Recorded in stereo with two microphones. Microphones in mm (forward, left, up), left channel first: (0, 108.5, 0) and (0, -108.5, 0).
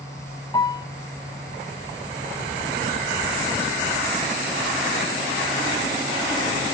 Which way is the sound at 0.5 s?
20° left (ahead or behind).